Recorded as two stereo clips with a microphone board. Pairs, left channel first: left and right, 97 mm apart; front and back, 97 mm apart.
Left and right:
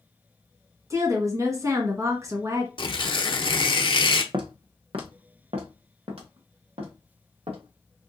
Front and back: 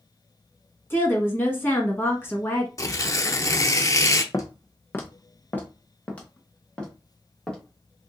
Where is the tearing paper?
55° left, 0.6 m.